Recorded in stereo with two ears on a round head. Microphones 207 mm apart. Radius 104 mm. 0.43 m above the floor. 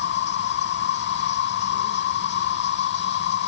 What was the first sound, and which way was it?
An insect, 50° left (ahead or behind).